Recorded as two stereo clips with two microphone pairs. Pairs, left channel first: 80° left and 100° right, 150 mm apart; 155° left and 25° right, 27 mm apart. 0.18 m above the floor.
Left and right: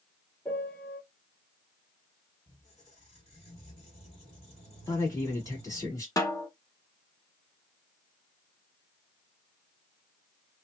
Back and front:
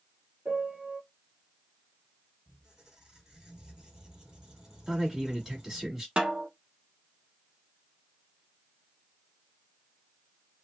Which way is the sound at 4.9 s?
45° left.